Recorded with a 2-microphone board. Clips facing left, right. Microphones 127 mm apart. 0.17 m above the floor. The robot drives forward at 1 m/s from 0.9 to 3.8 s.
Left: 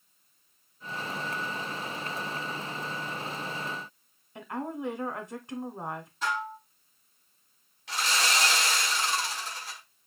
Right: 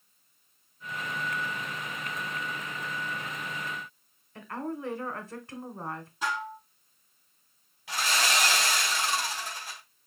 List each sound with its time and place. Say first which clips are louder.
4.3 s a woman speaking: left 1 dB; 20° left (ahead or behind), 1.2 m
6.2 s dishes clattering: left 1 dB; 15° right (ahead or behind), 4 m
7.9 s sawing: even; 5° right (ahead or behind), 3 m